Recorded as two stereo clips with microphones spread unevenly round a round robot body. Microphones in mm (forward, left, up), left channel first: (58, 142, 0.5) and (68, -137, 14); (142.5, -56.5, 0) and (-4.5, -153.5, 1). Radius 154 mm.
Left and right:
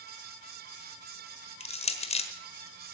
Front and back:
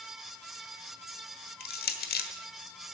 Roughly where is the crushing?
Ahead left.